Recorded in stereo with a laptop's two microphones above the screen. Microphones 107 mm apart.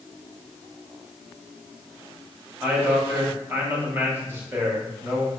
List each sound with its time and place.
2.6 s a man speaking: 20° right (ahead or behind), 1.0 m